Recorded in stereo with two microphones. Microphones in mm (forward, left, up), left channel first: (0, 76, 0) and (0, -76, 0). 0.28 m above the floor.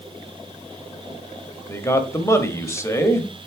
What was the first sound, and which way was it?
A man speaking, 20° left (ahead or behind).